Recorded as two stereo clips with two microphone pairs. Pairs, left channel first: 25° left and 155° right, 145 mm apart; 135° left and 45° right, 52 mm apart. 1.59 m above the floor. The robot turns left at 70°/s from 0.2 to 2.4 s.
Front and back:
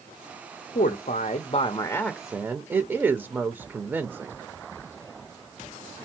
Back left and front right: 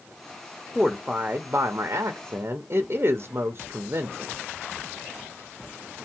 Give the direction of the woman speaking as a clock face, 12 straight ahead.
11 o'clock.